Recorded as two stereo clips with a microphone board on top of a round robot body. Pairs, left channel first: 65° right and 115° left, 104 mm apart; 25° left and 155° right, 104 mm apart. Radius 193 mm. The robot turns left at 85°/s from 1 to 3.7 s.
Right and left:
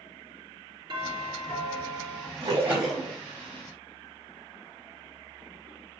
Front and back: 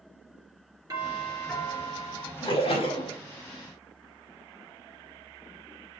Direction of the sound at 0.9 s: 150° left.